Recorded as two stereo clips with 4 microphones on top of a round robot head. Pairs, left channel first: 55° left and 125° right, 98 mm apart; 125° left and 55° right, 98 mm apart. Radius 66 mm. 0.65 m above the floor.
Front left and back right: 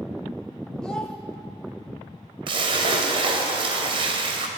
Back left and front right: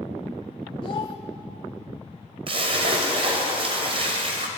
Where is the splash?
90° right, 2 m.